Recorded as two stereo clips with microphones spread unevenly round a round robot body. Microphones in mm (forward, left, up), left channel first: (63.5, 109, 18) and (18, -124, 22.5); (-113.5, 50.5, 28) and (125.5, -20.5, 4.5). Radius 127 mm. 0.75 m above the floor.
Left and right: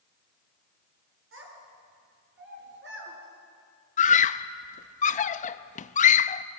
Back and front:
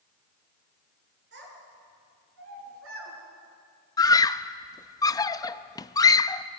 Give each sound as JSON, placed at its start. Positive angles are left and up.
{"t": 1.3, "sound": "a child speaking", "azimuth_deg": -65, "distance_m": 7.5}
{"t": 4.0, "sound": "a scream", "azimuth_deg": 90, "distance_m": 0.6}